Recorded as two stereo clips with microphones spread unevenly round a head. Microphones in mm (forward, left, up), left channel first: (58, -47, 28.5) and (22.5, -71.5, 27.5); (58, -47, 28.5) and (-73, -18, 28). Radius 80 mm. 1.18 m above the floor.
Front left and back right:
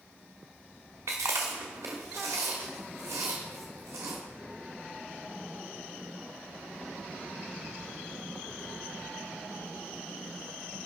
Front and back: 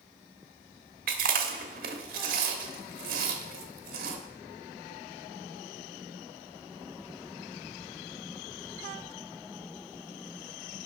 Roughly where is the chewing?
Behind.